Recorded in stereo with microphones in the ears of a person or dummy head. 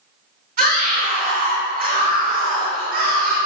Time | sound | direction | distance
0.6 | a scream | 40° right (ahead or behind) | 3 m